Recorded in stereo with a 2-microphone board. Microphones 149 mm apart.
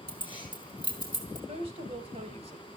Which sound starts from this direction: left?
Keys jangling, at 0.1 s.